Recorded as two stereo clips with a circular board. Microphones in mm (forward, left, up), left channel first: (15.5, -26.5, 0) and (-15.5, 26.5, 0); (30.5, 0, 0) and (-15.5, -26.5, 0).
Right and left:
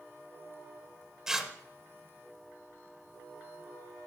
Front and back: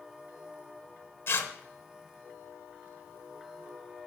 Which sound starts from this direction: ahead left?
Tearing paper, at 1.3 s.